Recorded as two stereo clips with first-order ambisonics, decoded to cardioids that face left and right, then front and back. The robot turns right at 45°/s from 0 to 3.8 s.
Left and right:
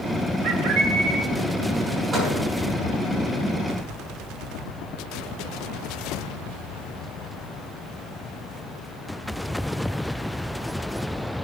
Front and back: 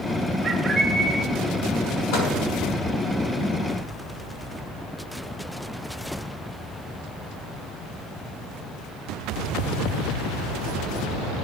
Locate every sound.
0.4 s a bird: 115° right, 2.5 m; by 1.2 s 80° right, 2.5 m
2.1 s a microwave: 20° right, 7.5 m; by 2.3 s 10° right, 7.5 m